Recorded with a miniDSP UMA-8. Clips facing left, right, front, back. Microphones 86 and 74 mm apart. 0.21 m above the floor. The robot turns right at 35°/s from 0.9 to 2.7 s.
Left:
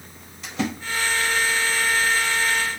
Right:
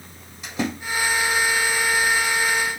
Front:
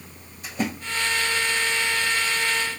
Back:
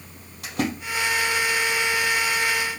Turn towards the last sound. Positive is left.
turn(degrees=-110)